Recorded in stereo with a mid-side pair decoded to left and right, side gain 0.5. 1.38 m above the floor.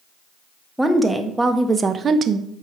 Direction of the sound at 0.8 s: 5° right.